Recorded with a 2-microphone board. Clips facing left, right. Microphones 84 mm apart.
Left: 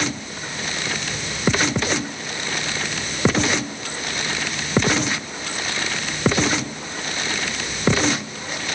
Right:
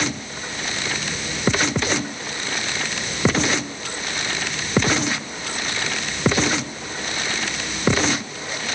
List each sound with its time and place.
Only background noise.